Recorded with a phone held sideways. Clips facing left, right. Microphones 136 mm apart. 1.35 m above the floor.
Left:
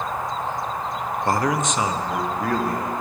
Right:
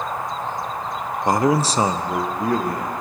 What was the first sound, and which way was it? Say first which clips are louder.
A man speaking: right 4 dB; 15° right (ahead or behind).